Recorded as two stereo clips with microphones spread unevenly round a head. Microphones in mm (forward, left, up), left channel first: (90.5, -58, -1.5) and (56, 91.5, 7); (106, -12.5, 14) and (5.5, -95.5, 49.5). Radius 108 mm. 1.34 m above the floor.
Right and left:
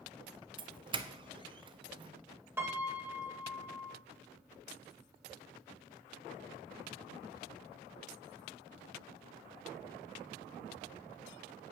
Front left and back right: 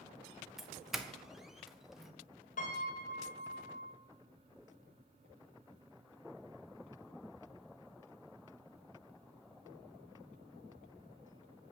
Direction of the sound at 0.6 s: 105° left.